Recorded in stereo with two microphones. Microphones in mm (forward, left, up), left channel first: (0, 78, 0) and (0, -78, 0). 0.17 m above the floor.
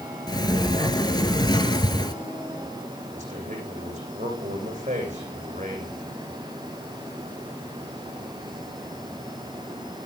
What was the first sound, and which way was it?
A sliding door, 25° left (ahead or behind).